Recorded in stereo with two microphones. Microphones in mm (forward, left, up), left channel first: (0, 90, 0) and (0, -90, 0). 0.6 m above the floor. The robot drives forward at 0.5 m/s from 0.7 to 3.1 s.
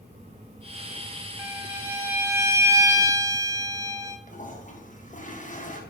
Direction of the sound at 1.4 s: 10° right (ahead or behind).